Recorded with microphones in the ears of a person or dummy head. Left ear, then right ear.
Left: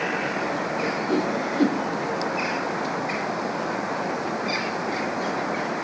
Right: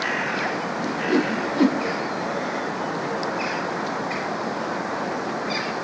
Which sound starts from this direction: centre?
A whoosh, at 0.8 s.